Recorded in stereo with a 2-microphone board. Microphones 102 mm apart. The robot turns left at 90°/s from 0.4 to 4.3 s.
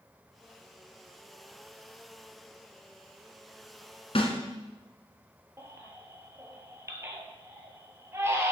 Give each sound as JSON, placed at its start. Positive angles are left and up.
{"t": 4.2, "sound": "a snare drum", "side_deg": 65, "distance_m": 1.2}
{"t": 5.6, "sound": "a baby crying", "side_deg": -25, "distance_m": 1.4}